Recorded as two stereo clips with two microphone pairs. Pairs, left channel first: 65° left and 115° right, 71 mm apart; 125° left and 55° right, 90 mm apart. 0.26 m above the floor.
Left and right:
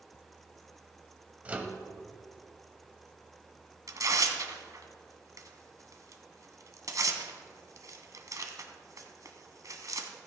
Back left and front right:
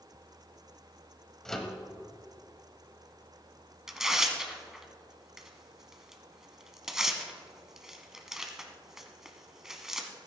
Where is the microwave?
155° right, 1.1 m.